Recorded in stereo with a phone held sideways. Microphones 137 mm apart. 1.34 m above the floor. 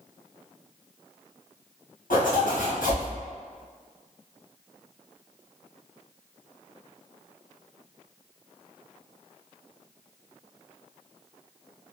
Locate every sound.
2.1 s a zipper: 90° left, 1.1 m